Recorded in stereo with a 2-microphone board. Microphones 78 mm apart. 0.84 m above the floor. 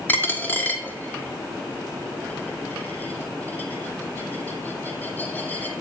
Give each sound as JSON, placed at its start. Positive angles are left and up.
{"t": 0.1, "sound": "a dropped coin", "side_deg": 20, "distance_m": 1.6}